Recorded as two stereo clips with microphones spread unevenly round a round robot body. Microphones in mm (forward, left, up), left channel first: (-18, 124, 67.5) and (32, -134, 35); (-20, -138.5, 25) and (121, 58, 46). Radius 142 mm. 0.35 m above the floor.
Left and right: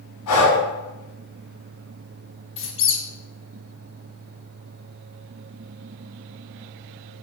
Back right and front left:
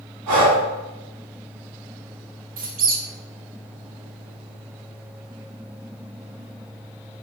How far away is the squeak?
About 1.1 m.